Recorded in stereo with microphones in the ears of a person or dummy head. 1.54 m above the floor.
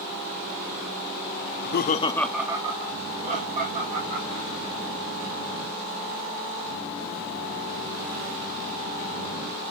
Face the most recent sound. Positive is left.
turn(degrees=-50)  # may be behind; listen again after turning